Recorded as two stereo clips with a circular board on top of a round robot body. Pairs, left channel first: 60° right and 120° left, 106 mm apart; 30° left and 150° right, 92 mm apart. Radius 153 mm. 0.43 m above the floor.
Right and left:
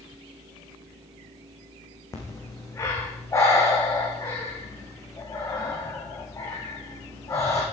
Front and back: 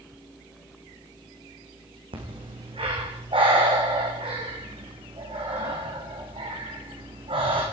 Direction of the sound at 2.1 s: 125° right.